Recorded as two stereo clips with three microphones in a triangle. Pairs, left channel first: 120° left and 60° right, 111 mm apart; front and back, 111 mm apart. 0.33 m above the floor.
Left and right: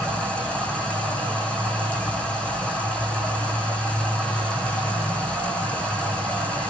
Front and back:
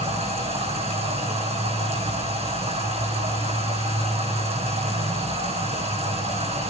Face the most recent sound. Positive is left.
turn(degrees=-160)